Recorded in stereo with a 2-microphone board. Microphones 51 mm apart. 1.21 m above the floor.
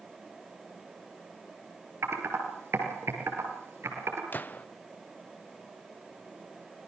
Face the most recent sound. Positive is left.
turn(degrees=40)  # may be behind; listen again after turning